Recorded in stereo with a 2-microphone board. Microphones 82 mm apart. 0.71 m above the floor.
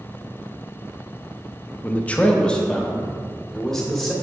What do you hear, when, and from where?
1.8 s a man speaking: 20° left (ahead or behind), 0.7 m; by 4.1 s 5° left (ahead or behind), 1.7 m